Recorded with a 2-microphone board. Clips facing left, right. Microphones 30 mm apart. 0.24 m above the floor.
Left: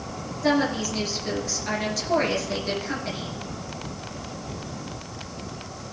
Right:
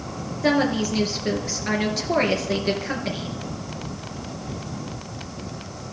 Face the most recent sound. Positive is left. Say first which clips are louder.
# right 2 dB
turn(degrees=-25)  # may be behind; listen again after turning